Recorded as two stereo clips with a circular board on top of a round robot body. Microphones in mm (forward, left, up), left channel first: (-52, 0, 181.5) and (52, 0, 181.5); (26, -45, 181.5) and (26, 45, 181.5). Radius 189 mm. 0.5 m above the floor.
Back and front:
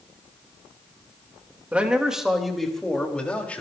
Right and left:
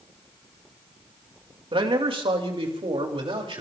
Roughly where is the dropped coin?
I don't hear a dropped coin.